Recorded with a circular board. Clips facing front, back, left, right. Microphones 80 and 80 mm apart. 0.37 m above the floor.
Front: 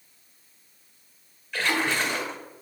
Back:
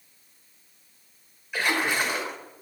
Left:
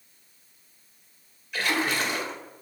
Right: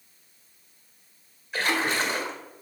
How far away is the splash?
About 1.4 m.